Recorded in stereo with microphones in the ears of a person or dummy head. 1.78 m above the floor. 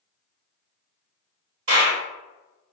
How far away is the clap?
About 1.2 m.